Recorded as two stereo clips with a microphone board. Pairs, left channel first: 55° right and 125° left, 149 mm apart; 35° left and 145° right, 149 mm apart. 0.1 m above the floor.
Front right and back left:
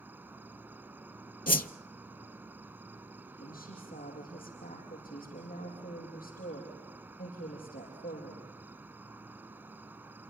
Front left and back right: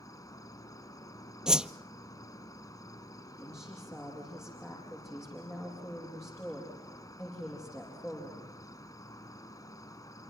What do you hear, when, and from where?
0.0 s an insect: 65° left, 1.1 m
1.5 s a whoosh: 60° right, 0.6 m
3.4 s a woman speaking: 40° right, 6.5 m